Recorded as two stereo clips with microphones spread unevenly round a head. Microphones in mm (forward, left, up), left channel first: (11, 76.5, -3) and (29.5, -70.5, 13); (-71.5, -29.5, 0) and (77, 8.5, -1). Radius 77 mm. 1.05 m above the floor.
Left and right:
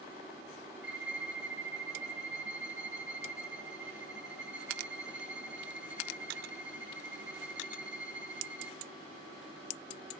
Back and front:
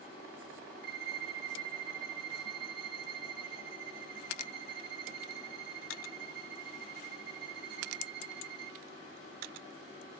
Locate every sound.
0.8 s a violin: straight ahead, 1.1 m